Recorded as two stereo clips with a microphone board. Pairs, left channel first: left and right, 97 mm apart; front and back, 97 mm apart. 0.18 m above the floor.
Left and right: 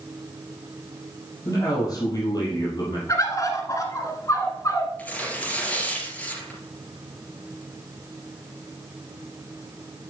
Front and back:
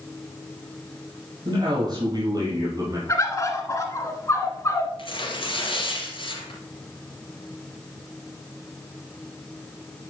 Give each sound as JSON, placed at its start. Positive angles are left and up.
{"t": 1.4, "sound": "a man speaking", "azimuth_deg": 145, "distance_m": 4.5}
{"t": 3.1, "sound": "a bird", "azimuth_deg": 50, "distance_m": 1.4}
{"t": 5.0, "sound": "tearing paper", "azimuth_deg": 15, "distance_m": 3.0}